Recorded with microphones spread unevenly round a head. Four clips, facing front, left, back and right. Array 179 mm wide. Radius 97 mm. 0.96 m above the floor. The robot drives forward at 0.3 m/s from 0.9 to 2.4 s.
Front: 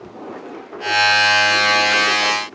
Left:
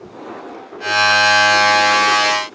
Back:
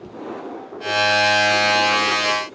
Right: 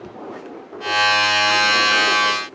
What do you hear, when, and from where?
Only background noise.